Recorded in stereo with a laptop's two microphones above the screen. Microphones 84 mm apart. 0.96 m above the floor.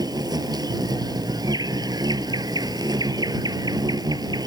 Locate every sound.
0.0 s an insect: 50° right (ahead or behind)